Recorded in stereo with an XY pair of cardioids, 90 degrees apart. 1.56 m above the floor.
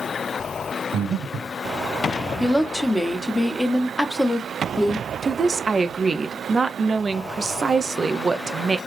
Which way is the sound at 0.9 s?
65° right.